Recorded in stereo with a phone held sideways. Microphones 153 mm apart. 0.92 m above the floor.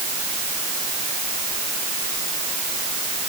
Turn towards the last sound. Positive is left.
No sound to turn to.